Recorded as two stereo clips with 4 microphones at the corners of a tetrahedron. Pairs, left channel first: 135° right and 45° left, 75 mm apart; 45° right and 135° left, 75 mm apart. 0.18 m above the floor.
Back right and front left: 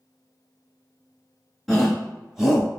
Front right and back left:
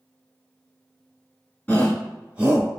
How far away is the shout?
About 1.0 m.